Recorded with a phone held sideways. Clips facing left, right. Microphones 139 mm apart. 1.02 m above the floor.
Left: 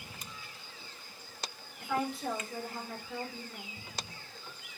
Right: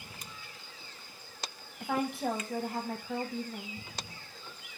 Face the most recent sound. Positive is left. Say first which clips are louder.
# right 2 dB
turn(degrees=-55)  # may be behind; listen again after turning